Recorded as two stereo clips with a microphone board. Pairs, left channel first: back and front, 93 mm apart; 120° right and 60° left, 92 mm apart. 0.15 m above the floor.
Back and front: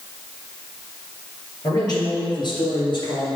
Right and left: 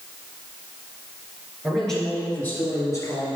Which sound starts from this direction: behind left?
A man speaking, at 1.6 s.